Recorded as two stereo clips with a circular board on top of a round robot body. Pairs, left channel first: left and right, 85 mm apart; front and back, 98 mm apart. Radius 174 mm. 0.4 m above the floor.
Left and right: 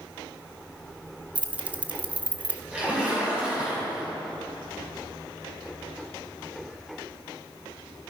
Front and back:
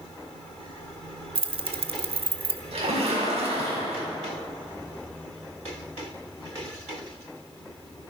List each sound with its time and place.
1.4 s keys jangling: 165° right, 0.9 m
2.7 s a splash: 170° right, 5.5 m